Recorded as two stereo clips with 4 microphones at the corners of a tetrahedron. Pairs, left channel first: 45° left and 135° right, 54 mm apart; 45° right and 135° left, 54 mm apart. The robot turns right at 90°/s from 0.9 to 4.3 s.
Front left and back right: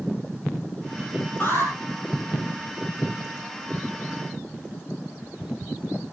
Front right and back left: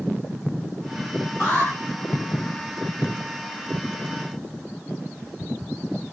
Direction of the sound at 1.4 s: 5° right.